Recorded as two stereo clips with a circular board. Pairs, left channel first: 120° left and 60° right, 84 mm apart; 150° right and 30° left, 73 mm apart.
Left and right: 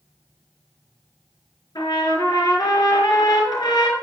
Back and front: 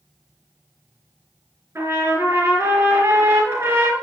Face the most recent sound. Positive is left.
turn(degrees=85)